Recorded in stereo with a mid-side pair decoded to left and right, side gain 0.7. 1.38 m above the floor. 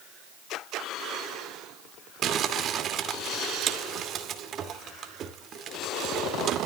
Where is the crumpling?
40° right, 2 m.